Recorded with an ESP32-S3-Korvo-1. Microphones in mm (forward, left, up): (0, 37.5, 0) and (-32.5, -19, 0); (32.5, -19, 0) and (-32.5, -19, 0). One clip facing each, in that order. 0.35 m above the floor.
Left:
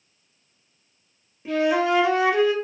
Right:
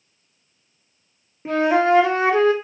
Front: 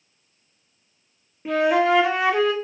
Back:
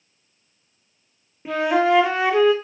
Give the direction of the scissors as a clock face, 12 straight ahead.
No scissors in this recording.